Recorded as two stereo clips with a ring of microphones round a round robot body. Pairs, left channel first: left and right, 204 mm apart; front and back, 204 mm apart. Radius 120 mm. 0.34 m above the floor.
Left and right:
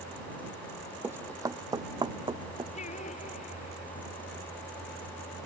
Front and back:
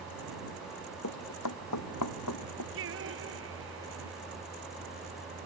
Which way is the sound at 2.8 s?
155° left.